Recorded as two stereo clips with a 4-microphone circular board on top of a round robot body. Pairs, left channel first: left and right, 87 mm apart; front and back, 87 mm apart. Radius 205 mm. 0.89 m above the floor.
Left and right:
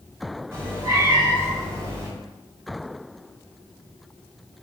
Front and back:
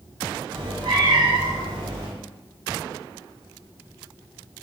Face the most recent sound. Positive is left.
turn(degrees=-150)